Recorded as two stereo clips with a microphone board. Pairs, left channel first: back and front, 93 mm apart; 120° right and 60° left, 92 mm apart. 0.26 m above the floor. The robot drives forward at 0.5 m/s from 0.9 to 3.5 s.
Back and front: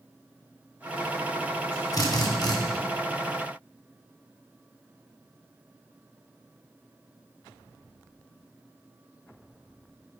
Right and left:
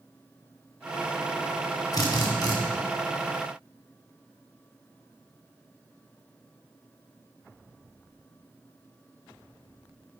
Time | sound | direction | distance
1.9 | a drill | 150° right | 1.6 m